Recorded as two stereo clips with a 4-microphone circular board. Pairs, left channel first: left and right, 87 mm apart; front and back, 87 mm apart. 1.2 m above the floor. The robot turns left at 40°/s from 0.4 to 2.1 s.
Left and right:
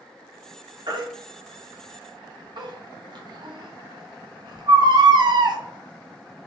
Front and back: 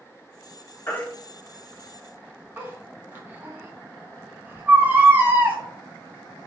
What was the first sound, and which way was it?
A baby crying, 65° right.